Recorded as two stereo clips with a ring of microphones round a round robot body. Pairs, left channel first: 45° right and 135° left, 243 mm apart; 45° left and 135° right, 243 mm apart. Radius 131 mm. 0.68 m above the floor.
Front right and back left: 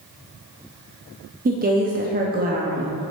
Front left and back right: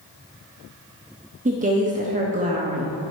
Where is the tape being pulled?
No tape being pulled in this recording.